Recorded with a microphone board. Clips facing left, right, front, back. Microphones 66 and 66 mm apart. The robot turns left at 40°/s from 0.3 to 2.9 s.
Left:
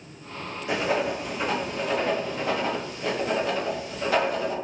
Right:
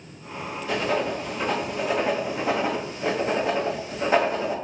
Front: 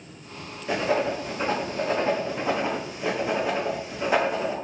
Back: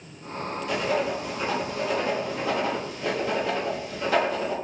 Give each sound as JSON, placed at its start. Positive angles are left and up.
{"t": 0.7, "sound": "writing", "azimuth_deg": 35, "distance_m": 0.8}